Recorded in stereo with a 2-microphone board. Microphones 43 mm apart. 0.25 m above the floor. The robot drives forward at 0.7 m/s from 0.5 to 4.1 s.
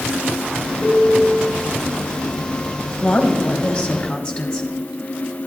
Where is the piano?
25° left (ahead or behind), 2.5 m.